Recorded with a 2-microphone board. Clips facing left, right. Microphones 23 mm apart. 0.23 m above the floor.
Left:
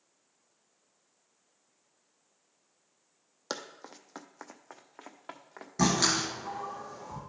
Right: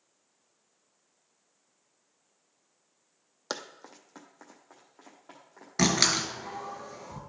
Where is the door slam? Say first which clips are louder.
Right 2 dB; 45° right (ahead or behind), 2 m.